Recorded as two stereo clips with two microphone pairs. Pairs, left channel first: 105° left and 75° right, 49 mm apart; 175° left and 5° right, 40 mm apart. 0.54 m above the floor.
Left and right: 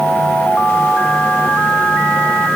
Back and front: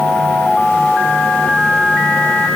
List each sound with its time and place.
Only background noise.